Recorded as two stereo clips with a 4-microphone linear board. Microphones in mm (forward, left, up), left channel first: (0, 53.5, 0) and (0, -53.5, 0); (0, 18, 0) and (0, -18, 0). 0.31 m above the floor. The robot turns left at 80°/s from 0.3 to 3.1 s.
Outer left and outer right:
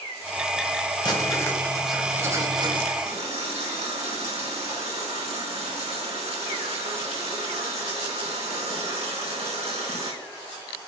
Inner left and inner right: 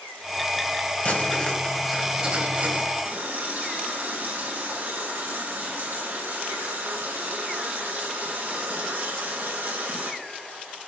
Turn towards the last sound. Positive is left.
turn(degrees=-75)  # may be behind; listen again after turning